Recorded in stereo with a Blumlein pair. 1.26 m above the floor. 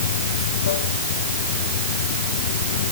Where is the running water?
60° left.